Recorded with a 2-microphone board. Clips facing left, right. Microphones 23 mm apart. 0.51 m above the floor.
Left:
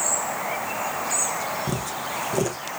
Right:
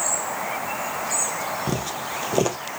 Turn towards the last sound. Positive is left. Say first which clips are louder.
# right 1 dB
turn(degrees=-35)  # may be behind; listen again after turning